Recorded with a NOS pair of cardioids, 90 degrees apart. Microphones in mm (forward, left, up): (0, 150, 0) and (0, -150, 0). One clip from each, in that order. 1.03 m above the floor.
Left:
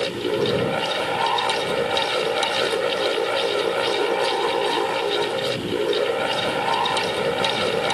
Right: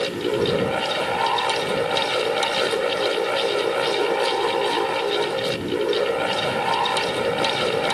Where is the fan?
5° right.